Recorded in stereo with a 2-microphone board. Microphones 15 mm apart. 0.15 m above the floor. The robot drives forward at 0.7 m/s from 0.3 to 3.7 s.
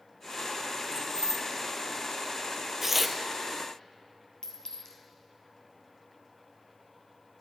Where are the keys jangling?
45° left (ahead or behind), 0.9 m; by 1.4 s 35° left (ahead or behind), 1.1 m.